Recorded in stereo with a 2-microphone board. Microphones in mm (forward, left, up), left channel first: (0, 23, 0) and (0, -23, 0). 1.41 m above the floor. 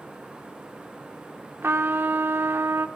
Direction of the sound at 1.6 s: 60° right (ahead or behind).